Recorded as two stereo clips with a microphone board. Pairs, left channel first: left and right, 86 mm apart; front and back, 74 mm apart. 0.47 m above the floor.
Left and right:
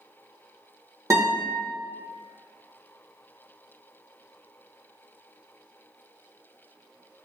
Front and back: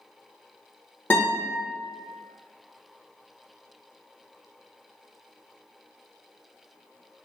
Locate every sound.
1.1 s a guitar: 50° right, 1.3 m